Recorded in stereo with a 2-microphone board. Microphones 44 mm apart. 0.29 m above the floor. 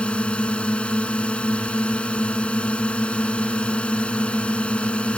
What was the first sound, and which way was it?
A drone, 25° left (ahead or behind).